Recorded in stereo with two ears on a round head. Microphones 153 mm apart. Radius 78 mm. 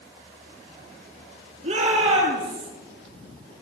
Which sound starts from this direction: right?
A shout, at 1.6 s.